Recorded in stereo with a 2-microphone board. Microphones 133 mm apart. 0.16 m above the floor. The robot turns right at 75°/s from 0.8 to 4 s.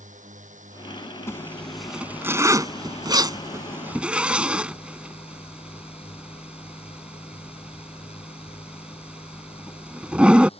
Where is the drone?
110° right; by 10.6 s 130° left.